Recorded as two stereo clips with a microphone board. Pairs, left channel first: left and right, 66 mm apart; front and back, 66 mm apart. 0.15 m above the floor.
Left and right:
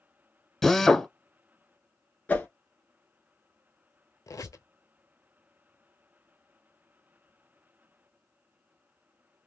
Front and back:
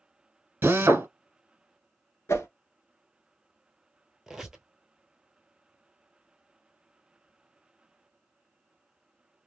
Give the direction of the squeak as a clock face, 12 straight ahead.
9 o'clock.